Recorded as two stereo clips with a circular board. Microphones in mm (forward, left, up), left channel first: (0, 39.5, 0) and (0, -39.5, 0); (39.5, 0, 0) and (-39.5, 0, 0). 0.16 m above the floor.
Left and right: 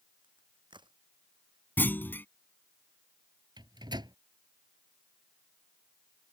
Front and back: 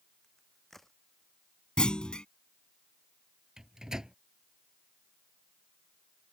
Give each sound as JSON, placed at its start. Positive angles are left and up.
{"t": 0.2, "sound": "a crack", "azimuth_deg": -85}
{"t": 1.8, "sound": "a clunk", "azimuth_deg": 65}
{"t": 3.6, "sound": "a microwave", "azimuth_deg": -95}